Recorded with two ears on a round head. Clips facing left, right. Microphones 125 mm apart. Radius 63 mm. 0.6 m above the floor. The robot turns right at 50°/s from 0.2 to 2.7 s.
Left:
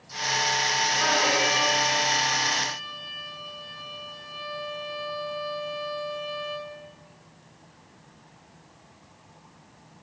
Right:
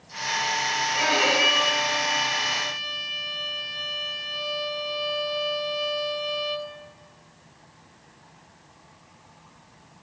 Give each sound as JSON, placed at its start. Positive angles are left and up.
{"t": 0.9, "sound": "a violin", "azimuth_deg": -175, "distance_m": 3.5}